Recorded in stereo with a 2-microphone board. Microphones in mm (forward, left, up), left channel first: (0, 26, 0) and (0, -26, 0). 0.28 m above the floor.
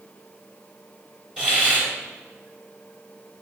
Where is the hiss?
20° right (ahead or behind), 3.5 m.